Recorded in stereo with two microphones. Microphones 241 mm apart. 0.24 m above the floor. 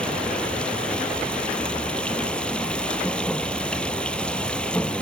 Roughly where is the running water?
Centre.